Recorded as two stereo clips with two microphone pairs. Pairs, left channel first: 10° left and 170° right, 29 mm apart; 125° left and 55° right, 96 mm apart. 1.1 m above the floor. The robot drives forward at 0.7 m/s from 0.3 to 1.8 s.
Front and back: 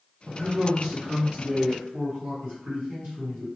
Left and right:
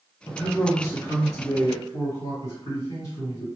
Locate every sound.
0.3 s a man speaking: 175° right, 1.3 m; by 3.5 s straight behind, 2 m